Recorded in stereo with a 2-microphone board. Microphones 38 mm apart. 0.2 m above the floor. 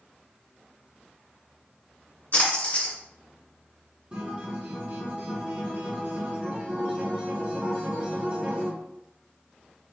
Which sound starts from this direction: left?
A splash, at 2.3 s.